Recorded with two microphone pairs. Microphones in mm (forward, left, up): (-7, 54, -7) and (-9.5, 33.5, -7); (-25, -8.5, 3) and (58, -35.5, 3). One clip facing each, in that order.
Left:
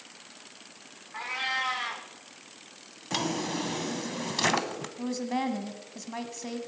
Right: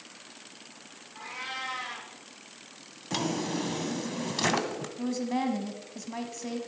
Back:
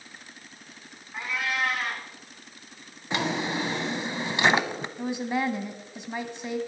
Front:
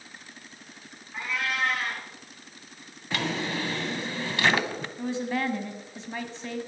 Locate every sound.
1.1 s a cat meowing: 80° left, 5 m
3.1 s a drawer: 125° left, 0.8 m
5.0 s a woman speaking: 120° left, 1.3 m